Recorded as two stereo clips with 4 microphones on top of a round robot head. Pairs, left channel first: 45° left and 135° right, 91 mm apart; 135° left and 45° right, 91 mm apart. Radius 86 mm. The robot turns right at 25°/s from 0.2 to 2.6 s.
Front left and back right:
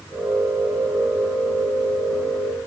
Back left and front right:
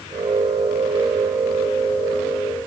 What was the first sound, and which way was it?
Only background noise.